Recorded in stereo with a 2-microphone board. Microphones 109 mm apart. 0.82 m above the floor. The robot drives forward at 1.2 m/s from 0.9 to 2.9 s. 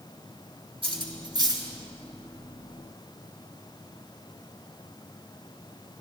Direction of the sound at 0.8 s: 55° right (ahead or behind).